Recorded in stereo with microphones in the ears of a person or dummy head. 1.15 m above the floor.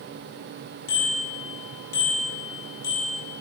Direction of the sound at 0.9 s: 55° left (ahead or behind).